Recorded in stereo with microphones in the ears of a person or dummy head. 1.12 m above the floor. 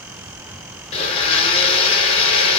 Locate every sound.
0.9 s a blender: 30° left (ahead or behind), 1.1 m